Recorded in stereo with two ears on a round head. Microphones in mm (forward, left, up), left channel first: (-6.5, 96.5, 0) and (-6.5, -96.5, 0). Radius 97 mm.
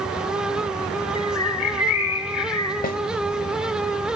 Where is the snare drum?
45° left (ahead or behind), 1.2 m.